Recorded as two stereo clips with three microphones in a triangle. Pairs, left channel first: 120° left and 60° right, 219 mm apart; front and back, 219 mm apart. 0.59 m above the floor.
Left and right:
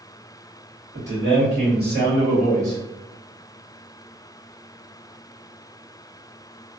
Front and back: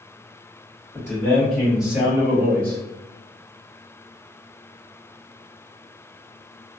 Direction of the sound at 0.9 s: 80° right.